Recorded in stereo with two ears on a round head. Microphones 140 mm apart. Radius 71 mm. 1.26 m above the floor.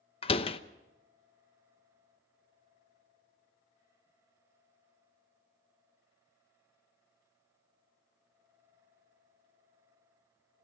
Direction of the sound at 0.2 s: 40° left (ahead or behind).